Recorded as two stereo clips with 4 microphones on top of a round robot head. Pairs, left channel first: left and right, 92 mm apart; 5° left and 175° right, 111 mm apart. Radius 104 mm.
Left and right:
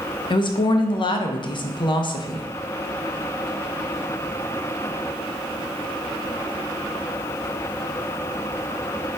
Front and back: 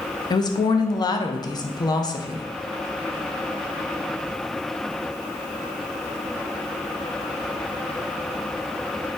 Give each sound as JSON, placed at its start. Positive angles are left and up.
{"t": 0.3, "sound": "a woman speaking", "azimuth_deg": 55, "distance_m": 0.7}